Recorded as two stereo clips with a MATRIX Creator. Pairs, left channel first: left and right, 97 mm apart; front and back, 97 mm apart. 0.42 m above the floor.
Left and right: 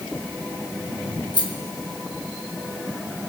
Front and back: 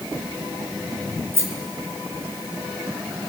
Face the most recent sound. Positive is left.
turn(degrees=120)